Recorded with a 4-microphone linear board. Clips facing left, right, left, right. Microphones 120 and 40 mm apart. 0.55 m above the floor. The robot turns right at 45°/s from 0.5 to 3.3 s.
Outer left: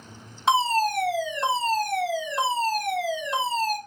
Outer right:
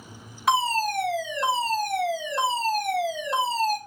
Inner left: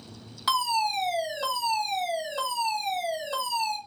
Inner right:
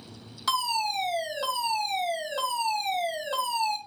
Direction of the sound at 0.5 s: 140° left.